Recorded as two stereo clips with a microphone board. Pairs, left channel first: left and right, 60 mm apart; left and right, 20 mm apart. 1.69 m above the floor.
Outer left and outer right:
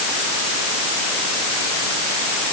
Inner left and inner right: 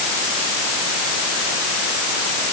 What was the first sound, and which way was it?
Only background noise.